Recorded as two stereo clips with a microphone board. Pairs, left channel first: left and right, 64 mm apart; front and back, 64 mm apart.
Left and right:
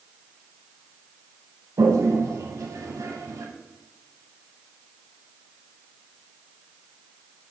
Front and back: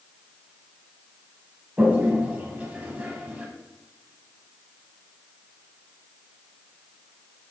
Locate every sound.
1.8 s a toilet flushing: 115° right, 1.2 m